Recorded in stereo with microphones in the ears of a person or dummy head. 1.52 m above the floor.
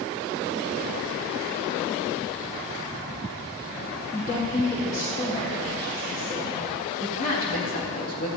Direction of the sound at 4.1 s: 30° left (ahead or behind).